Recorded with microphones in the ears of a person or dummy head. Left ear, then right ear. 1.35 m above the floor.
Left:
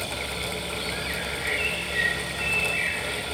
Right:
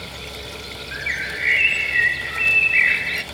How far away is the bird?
About 1.5 m.